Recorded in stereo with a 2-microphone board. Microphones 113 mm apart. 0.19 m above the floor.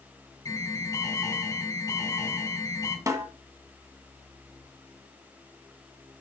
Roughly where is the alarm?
Left.